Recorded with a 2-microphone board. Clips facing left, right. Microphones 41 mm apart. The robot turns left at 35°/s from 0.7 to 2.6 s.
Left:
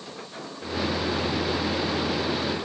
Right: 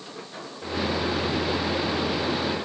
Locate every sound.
Only background noise.